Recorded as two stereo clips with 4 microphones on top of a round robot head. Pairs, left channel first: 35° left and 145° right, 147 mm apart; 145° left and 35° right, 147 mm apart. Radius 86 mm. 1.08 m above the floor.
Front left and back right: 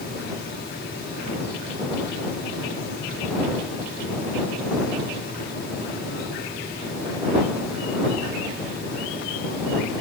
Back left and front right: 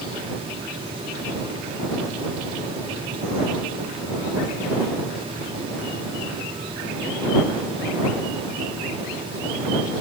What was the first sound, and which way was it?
Only background noise.